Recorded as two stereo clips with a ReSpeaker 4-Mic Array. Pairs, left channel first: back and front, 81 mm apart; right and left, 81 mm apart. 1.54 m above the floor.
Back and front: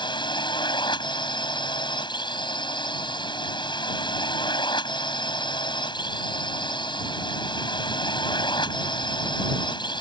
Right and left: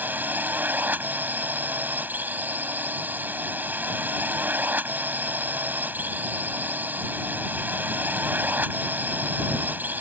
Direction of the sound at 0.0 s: 160° left.